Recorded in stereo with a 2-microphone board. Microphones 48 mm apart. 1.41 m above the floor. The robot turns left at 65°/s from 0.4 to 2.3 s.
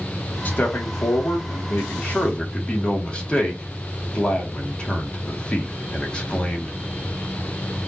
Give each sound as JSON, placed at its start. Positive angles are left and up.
{"t": 0.5, "sound": "a man speaking", "azimuth_deg": 140, "distance_m": 1.8}